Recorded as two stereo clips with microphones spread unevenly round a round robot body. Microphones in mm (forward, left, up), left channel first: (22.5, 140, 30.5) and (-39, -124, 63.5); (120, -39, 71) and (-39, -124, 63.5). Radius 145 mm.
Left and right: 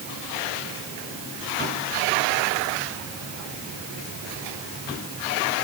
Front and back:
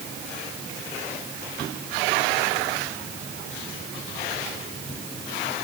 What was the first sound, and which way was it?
Only background noise.